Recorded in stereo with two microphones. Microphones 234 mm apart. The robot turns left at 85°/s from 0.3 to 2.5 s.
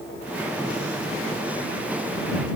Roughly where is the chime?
I don't hear a chime.